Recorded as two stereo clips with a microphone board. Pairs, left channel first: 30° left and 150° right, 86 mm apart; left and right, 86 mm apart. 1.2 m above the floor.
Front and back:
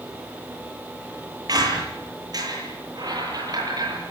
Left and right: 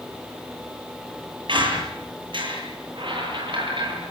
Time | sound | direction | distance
1.5 | a squeak | 110° right | 9.5 m